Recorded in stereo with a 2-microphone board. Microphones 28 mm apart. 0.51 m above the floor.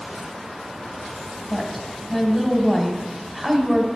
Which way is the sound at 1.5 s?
Centre (ahead or behind).